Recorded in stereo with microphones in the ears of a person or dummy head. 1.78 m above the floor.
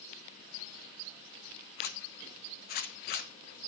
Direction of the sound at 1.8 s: 50° left (ahead or behind).